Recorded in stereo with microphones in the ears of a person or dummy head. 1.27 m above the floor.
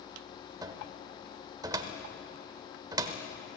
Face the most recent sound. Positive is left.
turn(degrees=-20)  # may be behind; listen again after turning